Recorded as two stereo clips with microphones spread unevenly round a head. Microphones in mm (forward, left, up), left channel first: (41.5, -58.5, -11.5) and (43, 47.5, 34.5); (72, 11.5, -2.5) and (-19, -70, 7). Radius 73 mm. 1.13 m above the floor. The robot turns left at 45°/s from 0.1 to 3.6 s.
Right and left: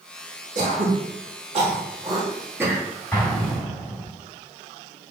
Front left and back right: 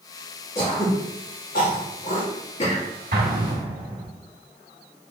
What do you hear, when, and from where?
0.6 s throat clearing: 110° left, 2.5 m; by 2.9 s 5° left, 2.5 m
3.1 s an explosion: 170° right, 2 m; by 4.1 s 170° left, 2 m